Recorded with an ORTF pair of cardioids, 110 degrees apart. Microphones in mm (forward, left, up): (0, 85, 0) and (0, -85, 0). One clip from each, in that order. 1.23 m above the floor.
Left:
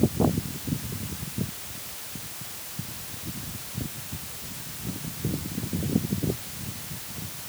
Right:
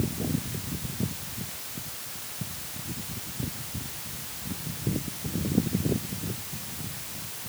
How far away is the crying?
No crying in this recording.